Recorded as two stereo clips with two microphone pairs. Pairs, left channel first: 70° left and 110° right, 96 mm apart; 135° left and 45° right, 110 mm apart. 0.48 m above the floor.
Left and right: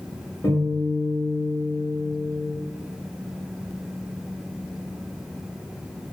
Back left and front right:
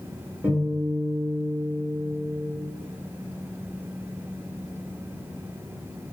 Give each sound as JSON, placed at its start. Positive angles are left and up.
{"t": 0.4, "sound": "a guitar", "azimuth_deg": 20, "distance_m": 1.0}